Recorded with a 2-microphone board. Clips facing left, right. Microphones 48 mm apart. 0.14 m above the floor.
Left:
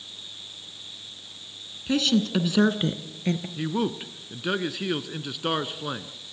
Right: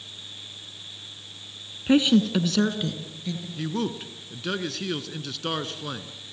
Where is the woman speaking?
30° right (ahead or behind), 1.4 m; by 3.5 s 50° left (ahead or behind), 2.5 m.